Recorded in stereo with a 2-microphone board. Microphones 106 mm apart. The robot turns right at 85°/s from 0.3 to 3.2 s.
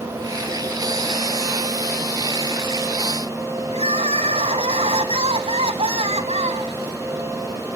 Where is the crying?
75° right (ahead or behind), 1.2 m.